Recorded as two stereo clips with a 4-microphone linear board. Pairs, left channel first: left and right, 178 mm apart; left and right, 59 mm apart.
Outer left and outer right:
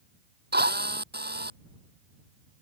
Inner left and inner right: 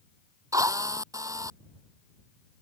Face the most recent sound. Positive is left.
turn(degrees=-70)  # may be behind; listen again after turning